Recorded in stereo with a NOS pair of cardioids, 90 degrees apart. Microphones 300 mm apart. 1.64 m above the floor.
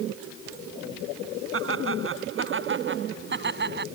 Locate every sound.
1.5 s laughter: 40° right; by 3.9 s 30° right